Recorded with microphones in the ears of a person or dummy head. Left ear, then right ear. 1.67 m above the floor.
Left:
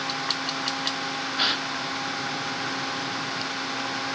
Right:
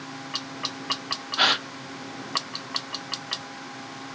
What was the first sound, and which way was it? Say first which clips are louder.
A gasp: right 4 dB; 30° right (ahead or behind).